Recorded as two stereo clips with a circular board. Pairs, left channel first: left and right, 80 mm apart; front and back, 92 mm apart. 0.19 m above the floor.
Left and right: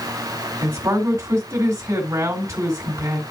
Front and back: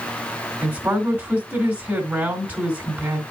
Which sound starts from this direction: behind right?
A man speaking, at 0.6 s.